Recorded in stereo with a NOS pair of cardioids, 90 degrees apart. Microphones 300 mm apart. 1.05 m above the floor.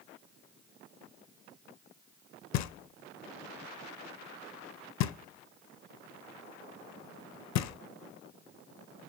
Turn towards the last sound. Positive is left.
turn(degrees=70)